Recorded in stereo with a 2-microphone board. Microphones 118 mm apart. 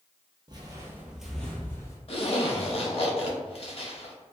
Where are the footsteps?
40° right (ahead or behind), 0.7 m; by 2.0 s 30° left (ahead or behind), 0.8 m.